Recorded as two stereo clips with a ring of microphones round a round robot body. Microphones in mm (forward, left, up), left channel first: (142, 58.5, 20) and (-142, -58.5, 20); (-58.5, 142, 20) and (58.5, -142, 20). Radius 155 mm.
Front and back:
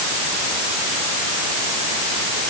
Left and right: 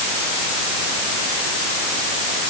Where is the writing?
No writing in this recording.